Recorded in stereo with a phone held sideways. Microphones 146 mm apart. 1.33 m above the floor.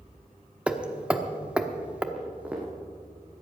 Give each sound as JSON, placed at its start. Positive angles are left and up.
{"t": 0.7, "sound": "hammering", "side_deg": -10, "distance_m": 0.9}
{"t": 2.1, "sound": "footsteps", "side_deg": -10, "distance_m": 3.0}